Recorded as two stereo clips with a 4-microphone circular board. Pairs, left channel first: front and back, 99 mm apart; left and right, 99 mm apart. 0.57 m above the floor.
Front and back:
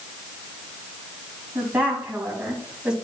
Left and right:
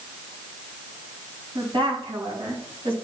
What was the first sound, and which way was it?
A woman speaking, 110° right.